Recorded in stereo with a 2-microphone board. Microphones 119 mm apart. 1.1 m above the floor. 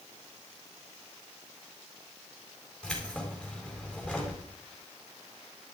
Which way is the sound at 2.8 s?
5° left (ahead or behind).